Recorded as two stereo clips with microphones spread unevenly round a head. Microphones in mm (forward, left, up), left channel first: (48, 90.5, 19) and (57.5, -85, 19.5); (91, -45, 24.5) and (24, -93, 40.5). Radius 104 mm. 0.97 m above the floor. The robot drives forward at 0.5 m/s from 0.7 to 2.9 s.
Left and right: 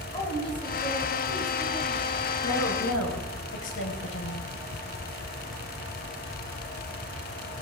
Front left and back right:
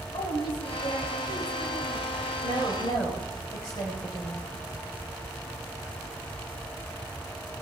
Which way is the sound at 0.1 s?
35° left.